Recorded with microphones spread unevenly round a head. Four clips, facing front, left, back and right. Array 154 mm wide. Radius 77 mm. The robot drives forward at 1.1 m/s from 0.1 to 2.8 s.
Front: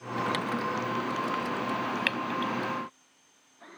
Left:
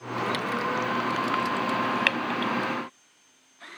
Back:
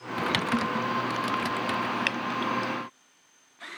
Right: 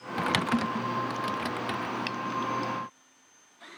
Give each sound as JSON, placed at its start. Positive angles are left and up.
{"t": 0.2, "sound": "typing on a keyboard", "azimuth_deg": -125}
{"t": 2.1, "sound": "dripping", "azimuth_deg": 90}